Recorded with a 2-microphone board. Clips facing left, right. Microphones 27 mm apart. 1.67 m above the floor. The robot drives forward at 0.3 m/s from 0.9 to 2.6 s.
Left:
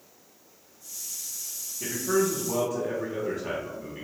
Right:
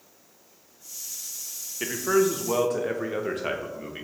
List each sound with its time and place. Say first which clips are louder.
1.8 s a man speaking: right 3 dB; 75° right (ahead or behind), 0.5 m; by 4.0 s 80° right, 0.5 m